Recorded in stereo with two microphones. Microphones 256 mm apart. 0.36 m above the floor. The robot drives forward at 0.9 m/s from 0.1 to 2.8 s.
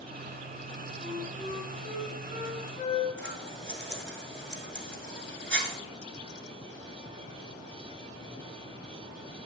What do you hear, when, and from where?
1.0 s a flute: 45° left (ahead or behind), 1.8 m; by 3.1 s 25° left (ahead or behind), 3 m
3.2 s scissors: 45° right (ahead or behind), 1.1 m